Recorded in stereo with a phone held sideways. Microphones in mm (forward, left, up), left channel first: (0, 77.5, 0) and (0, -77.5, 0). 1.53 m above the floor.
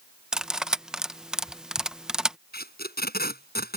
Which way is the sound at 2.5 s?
85° left.